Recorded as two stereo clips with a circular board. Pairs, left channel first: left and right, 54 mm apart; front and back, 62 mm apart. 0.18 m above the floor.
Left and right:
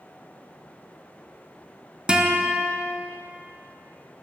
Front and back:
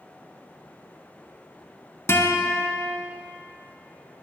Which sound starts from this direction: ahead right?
A guitar, at 2.1 s.